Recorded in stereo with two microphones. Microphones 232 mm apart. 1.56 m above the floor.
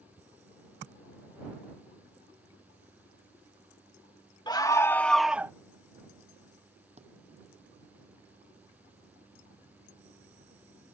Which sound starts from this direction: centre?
A scream, at 4.5 s.